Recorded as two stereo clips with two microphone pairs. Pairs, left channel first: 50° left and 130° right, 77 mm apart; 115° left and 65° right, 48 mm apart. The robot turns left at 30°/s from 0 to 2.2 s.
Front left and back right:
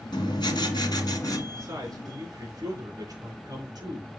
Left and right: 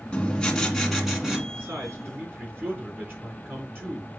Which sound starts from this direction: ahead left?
Writing, at 0.1 s.